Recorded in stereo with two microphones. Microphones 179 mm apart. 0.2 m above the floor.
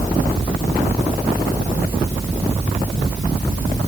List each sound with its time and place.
Only background noise.